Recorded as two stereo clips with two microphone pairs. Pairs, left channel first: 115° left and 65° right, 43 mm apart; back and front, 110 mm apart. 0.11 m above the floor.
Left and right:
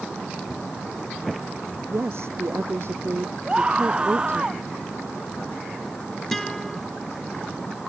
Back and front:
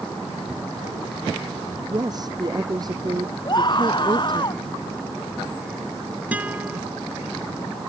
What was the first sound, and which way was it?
A woman speaking, 50° right.